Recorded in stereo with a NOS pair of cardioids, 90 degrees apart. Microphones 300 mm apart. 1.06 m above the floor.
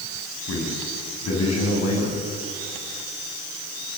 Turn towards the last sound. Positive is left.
turn(degrees=55)